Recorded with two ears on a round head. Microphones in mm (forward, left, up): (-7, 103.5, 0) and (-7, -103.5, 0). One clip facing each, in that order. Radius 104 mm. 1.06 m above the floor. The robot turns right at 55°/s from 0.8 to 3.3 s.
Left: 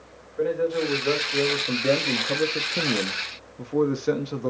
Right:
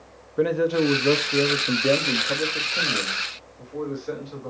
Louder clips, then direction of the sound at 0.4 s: Right 3 dB; 70° right.